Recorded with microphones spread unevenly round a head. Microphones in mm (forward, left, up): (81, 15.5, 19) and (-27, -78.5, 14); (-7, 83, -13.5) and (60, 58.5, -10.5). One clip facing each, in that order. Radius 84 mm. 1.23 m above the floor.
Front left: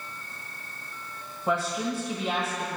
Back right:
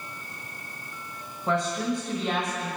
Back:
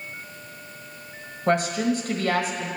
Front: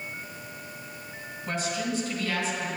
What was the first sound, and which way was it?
A woman speaking, 125° left.